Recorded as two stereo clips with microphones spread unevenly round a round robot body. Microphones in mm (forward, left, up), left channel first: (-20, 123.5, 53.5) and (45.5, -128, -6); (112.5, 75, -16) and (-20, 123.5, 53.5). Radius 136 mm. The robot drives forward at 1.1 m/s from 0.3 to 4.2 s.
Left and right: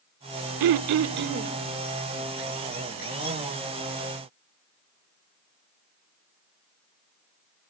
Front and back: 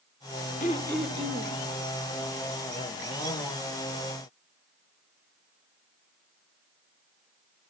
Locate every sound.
0.6 s throat clearing: 70° right, 0.6 m; by 1.5 s 145° right, 1.0 m